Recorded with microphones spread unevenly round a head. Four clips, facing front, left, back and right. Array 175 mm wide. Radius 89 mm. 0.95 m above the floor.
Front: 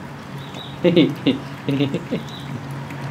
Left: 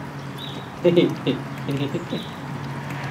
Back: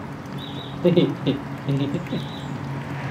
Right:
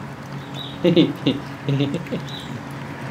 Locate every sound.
0.7 s laughter: 25° right, 2 m; by 2.6 s 5° right, 1.1 m